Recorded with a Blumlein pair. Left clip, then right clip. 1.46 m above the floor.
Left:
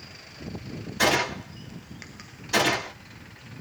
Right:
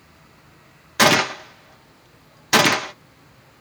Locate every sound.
1.0 s a gunshot: 40° right, 0.7 m